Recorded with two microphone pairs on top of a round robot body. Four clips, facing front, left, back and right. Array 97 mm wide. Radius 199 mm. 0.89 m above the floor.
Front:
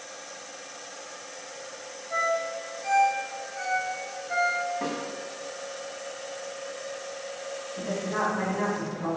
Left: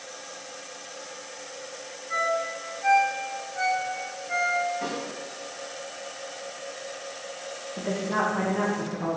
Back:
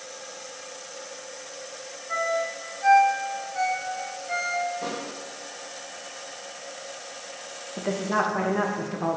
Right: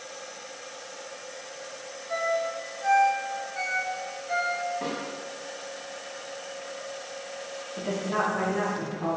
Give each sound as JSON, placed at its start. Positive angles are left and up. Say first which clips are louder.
{"t": 2.1, "sound": "a ringtone", "louder": "even, back 1 dB", "azimuth_deg": 180, "distance_m": 1.2}
{"t": 4.8, "sound": "a snare drum", "louder": "left 1 dB, front 1 dB", "azimuth_deg": -10, "distance_m": 1.5}
{"t": 7.8, "sound": "a woman speaking", "louder": "left 1 dB, back 4 dB", "azimuth_deg": 170, "distance_m": 0.7}